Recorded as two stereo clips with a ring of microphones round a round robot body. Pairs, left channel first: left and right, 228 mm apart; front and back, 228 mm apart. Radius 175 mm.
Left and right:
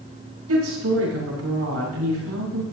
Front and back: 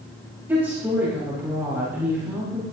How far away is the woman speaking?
About 6 m.